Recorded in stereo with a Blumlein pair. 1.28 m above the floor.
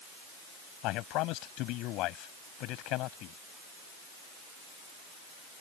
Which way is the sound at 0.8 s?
40° left.